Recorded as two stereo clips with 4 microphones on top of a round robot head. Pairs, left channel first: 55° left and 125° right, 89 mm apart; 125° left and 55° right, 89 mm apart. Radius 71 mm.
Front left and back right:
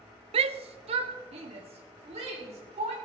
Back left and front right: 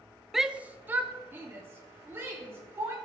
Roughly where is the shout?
Behind right.